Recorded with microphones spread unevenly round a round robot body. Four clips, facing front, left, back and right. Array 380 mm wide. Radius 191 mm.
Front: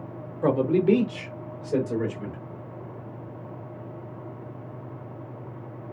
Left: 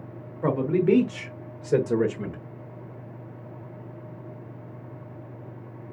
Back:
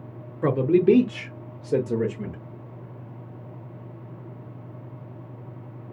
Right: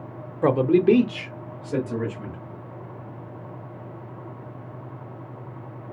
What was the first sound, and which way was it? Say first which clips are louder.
A man speaking: right 5 dB, back 2 dB; 125° right.